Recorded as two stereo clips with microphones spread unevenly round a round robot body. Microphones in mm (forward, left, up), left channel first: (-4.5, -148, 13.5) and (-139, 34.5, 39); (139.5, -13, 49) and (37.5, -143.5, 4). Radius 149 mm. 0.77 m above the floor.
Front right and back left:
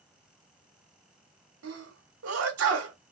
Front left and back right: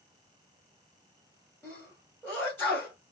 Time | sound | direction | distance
1.6 | a sneeze | 145° left | 2 m